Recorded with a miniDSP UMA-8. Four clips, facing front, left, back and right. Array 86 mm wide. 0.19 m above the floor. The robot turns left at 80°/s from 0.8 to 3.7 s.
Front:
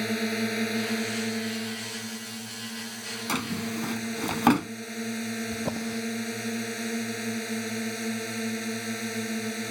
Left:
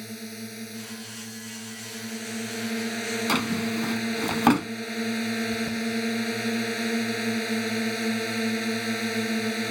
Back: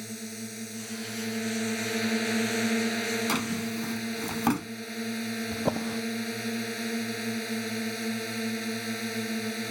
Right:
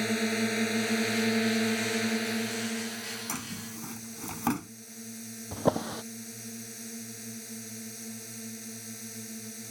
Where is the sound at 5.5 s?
110° right.